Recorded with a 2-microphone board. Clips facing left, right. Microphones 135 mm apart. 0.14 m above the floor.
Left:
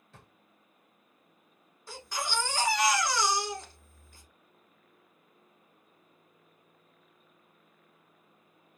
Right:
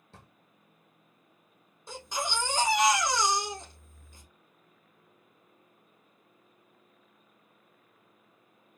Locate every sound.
0.1 s a drawer: 30° right (ahead or behind), 1.5 m
1.9 s a baby crying: 20° right (ahead or behind), 1.0 m